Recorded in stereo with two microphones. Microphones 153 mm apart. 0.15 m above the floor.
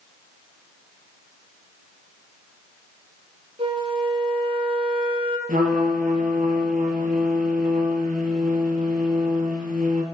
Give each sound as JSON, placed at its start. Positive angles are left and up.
{"t": 3.6, "sound": "a flute", "side_deg": -40, "distance_m": 1.5}
{"t": 5.5, "sound": "a trumpet", "side_deg": -65, "distance_m": 2.5}